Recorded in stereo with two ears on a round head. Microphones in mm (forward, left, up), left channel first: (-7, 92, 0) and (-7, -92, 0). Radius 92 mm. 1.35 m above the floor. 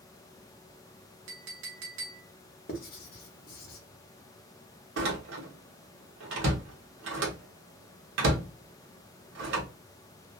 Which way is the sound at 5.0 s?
65° right (ahead or behind).